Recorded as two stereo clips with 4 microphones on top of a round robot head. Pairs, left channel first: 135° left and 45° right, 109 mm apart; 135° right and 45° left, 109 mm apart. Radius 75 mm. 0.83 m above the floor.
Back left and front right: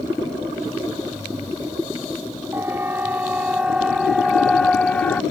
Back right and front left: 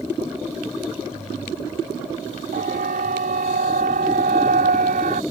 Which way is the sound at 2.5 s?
30° left.